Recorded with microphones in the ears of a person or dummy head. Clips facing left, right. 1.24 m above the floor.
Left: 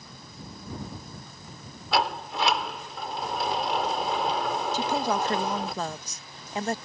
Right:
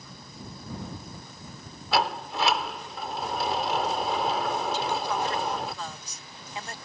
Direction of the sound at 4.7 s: 40° left (ahead or behind).